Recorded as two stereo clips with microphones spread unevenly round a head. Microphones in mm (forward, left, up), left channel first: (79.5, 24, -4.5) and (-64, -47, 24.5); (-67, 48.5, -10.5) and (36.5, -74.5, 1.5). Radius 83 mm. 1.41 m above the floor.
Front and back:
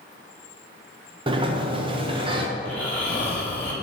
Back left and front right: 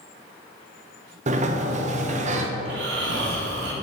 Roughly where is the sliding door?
Right.